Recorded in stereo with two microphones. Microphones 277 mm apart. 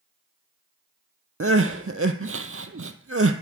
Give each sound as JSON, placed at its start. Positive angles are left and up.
{"t": 1.4, "sound": "crying", "side_deg": -50, "distance_m": 0.7}